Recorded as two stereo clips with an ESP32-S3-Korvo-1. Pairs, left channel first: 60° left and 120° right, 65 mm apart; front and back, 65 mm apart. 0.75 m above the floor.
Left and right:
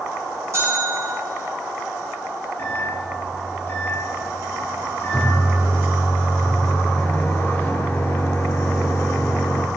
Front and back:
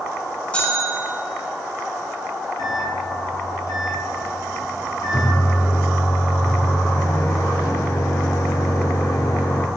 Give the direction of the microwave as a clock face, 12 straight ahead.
12 o'clock.